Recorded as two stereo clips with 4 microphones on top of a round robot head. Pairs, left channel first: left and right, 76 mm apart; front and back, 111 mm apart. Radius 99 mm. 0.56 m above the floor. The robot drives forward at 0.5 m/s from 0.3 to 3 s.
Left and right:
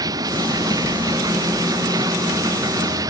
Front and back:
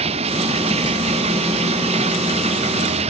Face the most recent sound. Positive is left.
turn(degrees=-140)